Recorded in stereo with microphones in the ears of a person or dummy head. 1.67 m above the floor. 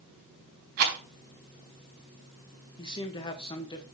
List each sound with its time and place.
0.8 s a rattle: 55° right (ahead or behind), 4 m
2.8 s a man speaking: 25° left (ahead or behind), 1.7 m